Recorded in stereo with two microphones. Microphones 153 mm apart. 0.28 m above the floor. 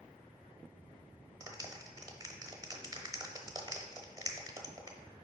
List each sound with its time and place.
1.4 s a clap: 25° right (ahead or behind), 0.8 m